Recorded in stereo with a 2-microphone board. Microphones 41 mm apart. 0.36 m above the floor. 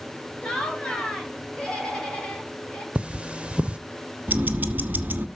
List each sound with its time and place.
0.4 s laughter: 25° left (ahead or behind), 2 m
3.0 s cutlery clinking: 25° right (ahead or behind), 0.5 m
4.3 s ticking: 45° right (ahead or behind), 1.3 m